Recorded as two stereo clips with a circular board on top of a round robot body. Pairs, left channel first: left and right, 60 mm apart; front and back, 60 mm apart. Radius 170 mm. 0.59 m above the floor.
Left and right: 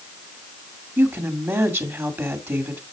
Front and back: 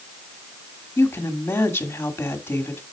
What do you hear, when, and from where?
1.0 s a woman speaking: 50° right, 2 m